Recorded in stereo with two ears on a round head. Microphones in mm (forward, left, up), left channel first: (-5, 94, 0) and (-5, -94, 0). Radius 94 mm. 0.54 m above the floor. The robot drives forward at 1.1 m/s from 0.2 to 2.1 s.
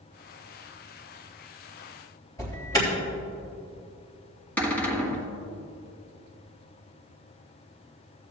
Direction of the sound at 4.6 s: 5° left (ahead or behind).